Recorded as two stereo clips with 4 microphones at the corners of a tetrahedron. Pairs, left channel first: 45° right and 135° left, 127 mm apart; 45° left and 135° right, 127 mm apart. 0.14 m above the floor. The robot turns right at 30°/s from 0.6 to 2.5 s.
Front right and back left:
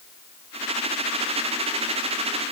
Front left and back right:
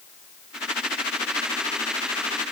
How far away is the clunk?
I don't hear a clunk.